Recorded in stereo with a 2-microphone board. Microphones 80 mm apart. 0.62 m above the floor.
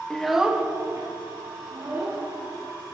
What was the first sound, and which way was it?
A child speaking, 10° left (ahead or behind).